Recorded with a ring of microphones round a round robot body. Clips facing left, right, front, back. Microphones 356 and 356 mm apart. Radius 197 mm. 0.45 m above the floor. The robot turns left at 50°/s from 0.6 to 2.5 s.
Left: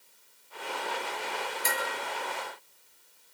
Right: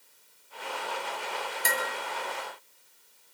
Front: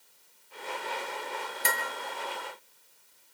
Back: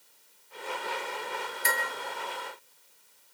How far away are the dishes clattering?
About 5.5 m.